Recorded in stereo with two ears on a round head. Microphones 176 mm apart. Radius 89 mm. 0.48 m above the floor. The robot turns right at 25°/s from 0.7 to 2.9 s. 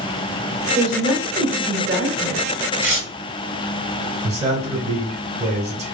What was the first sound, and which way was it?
A woman speaking, 75° right.